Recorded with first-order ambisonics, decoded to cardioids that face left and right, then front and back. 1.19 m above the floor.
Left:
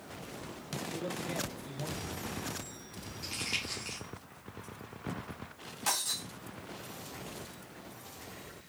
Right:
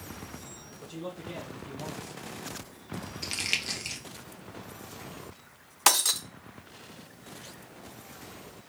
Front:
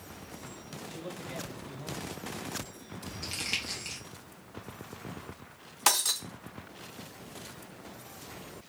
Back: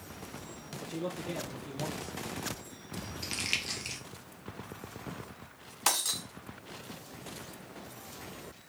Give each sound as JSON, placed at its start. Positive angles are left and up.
{"t": 0.8, "sound": "a man speaking", "azimuth_deg": 180, "distance_m": 1.3}
{"t": 3.2, "sound": "crumpling", "azimuth_deg": -110, "distance_m": 0.8}
{"t": 5.9, "sound": "breaking glass", "azimuth_deg": -75, "distance_m": 0.5}